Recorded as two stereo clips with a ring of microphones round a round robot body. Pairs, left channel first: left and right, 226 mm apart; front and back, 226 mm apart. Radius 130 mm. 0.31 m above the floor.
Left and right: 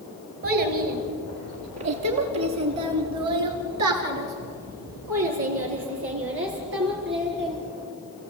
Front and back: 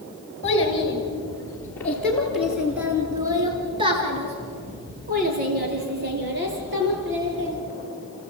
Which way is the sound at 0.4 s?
65° right.